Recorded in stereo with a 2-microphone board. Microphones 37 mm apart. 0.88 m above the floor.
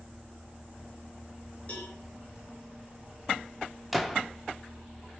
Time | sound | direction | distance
1.7 | a cowbell | 30° left (ahead or behind) | 3.5 m
3.9 | a gunshot | 5° right (ahead or behind) | 1.0 m